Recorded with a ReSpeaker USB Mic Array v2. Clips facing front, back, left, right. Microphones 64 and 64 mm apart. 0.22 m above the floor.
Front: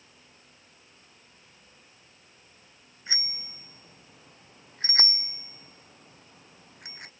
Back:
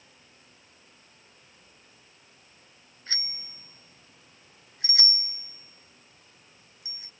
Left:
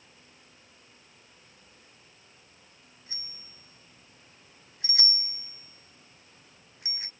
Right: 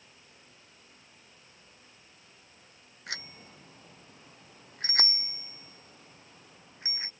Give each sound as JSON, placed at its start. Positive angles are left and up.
{"t": 3.1, "sound": "a bicycle bell", "azimuth_deg": -75}